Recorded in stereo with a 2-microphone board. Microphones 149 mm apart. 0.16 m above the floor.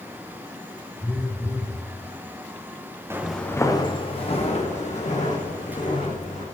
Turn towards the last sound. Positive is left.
turn(degrees=60)  # may be behind; listen again after turning